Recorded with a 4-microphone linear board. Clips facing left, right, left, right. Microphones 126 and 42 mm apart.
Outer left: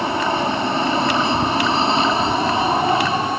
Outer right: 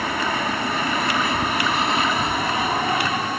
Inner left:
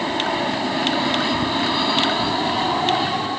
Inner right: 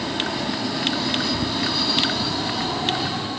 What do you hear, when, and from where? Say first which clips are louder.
0.0 s an aircraft: outer left 4 dB, inner left 4 dB; 30° left (ahead or behind)